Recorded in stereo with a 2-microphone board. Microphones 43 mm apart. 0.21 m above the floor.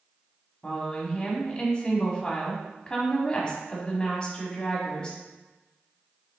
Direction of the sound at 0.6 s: 25° left (ahead or behind).